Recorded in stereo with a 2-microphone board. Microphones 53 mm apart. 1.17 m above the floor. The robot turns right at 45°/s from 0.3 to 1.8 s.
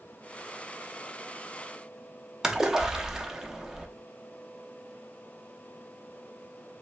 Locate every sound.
2.4 s a splash: 10° right (ahead or behind), 0.7 m